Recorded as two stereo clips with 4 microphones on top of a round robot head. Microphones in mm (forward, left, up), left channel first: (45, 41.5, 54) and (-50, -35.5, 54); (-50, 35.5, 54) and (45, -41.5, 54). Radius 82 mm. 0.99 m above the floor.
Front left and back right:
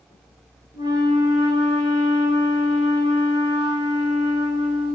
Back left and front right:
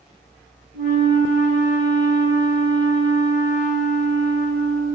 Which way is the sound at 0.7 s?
165° left.